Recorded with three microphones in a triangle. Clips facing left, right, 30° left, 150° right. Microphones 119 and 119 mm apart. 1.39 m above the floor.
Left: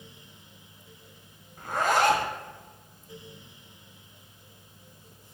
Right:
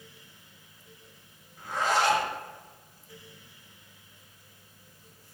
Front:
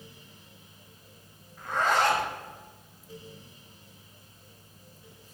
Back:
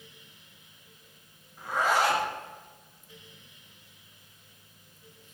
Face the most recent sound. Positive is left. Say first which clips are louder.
# left 3 dB, even
turn(degrees=130)